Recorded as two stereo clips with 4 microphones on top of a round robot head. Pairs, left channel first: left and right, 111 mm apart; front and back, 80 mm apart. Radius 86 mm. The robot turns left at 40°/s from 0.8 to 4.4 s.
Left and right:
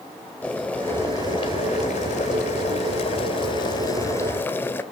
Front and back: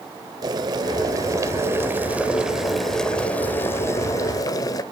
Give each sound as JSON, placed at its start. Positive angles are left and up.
{"t": 0.4, "sound": "boiling", "azimuth_deg": 170, "distance_m": 1.4}